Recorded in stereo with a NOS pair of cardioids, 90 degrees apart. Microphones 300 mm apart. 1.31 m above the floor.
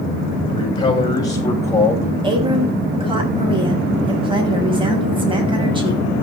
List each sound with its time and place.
0.5 s a man speaking: 15° left, 8.5 m; by 2.1 s 10° left, 8.5 m
2.2 s a woman speaking: 15° right, 6.5 m